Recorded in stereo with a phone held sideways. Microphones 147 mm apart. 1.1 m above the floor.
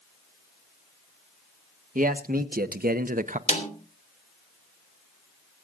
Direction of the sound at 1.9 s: 65° right (ahead or behind).